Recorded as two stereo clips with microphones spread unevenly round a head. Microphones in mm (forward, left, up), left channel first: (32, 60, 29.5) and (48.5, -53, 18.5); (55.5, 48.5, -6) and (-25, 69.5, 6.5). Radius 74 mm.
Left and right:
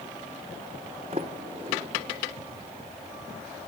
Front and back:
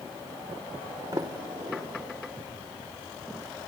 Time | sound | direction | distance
1.1 | a sliding door | 135° right | 1.7 m